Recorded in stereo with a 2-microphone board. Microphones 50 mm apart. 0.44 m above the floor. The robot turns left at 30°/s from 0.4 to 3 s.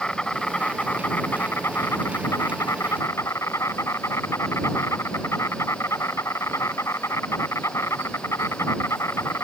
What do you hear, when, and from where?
0.0 s an insect: 165° left; by 9.4 s 85° left